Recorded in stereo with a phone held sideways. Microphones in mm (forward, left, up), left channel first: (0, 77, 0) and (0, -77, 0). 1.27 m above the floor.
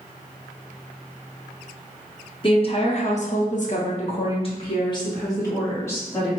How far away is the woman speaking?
About 1.0 m.